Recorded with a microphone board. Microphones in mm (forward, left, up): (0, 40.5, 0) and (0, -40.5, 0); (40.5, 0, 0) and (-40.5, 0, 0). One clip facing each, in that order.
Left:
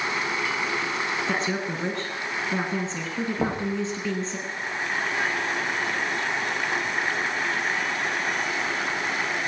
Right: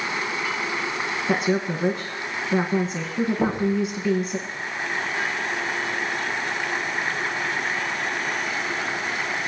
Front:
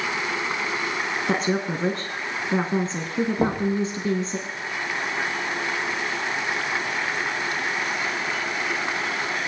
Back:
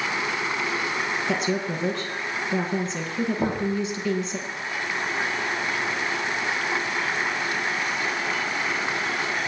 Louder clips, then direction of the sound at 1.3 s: Right 4 dB, front 4 dB; 15° right.